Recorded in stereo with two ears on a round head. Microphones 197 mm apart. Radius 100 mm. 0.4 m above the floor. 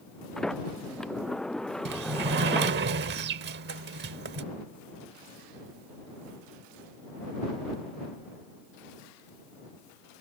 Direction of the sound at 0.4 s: 5° left (ahead or behind).